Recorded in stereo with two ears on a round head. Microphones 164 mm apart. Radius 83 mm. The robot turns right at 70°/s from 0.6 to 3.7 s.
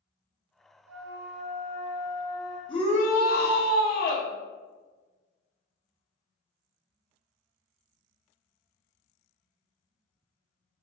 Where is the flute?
85° right, 0.7 m; by 2.6 s 35° left, 0.7 m.